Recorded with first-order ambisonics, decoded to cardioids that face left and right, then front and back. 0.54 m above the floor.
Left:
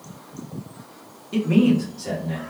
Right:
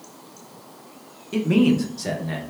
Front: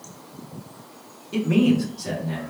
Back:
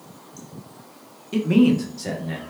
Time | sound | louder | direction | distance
1.3 | a man speaking | even, back 2 dB | 160° right | 0.6 m